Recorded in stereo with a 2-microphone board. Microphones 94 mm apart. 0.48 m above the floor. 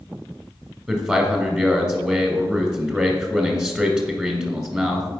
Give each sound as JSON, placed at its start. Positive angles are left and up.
{"t": 0.9, "sound": "a man speaking", "side_deg": -15, "distance_m": 1.7}